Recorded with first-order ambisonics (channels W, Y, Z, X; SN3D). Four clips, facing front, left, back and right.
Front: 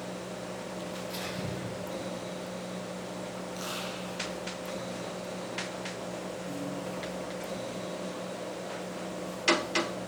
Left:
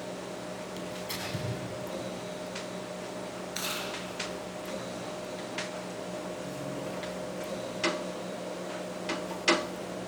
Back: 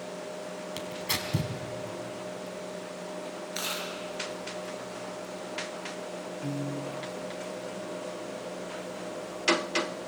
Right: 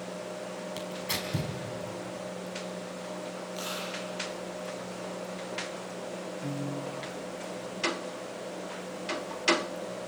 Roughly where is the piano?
Behind right.